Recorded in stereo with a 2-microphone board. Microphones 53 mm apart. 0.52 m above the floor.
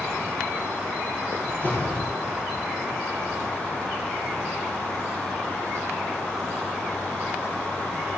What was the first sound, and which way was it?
A door slam, 40° left (ahead or behind).